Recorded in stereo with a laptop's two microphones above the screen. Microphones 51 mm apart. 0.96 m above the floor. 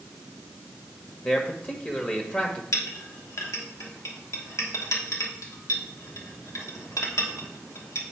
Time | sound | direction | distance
1.2 | a man speaking | 30° left (ahead or behind) | 1.4 m
2.7 | a clink | 75° left (ahead or behind) | 1.2 m